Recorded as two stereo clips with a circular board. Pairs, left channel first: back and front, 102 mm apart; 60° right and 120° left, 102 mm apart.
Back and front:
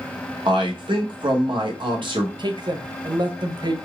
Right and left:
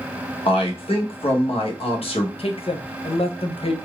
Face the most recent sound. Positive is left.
turn(degrees=-40)